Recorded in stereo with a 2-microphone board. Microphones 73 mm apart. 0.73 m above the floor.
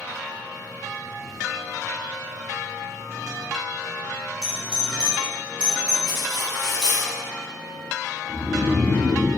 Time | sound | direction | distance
4.4 | a doorbell | 15° right (ahead or behind) | 1.5 m
6.1 | cutlery clinking | 85° right | 1.7 m
8.3 | snoring | 50° right (ahead or behind) | 1.7 m